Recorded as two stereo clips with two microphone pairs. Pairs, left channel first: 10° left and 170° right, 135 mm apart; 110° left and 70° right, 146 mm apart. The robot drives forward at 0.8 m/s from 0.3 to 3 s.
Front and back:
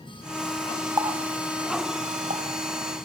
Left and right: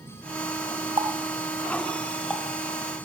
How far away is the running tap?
About 0.6 m.